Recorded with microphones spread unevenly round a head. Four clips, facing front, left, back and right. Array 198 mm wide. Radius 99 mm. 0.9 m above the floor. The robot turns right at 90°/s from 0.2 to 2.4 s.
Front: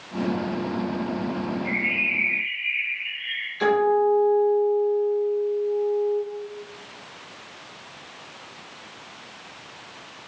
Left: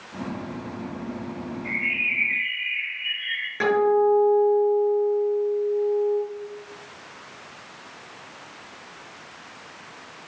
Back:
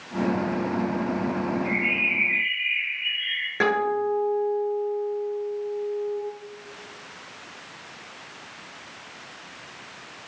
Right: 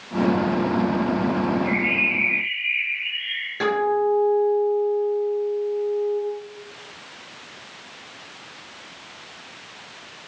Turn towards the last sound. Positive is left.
turn(degrees=180)